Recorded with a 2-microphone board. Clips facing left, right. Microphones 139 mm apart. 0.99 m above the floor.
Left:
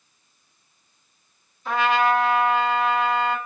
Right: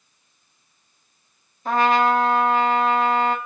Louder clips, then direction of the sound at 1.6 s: Right 2 dB; 45° right (ahead or behind).